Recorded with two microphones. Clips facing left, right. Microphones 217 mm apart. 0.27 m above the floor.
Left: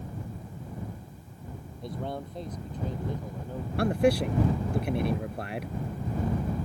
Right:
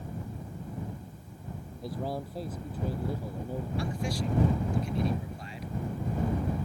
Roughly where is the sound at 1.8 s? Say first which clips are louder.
Right 1 dB; centre.